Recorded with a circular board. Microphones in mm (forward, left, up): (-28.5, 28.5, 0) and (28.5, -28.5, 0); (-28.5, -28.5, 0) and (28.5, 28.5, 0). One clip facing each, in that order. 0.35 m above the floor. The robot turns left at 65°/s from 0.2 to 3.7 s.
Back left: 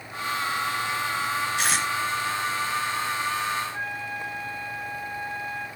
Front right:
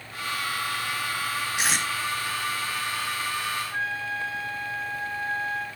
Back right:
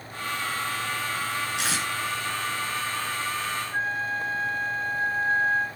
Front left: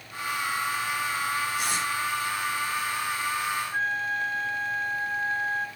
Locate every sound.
1.6 s tape being pulled: 125° right, 2.5 m; by 1.9 s 145° right, 2.5 m
3.7 s a flute: 45° right, 1.7 m